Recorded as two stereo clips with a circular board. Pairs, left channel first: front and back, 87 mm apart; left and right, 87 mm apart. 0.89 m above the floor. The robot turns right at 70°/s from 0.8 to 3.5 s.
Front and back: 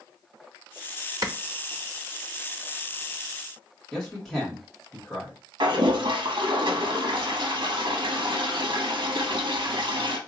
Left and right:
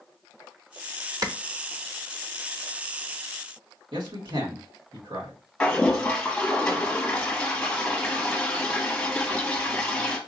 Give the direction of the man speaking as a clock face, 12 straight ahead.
3 o'clock.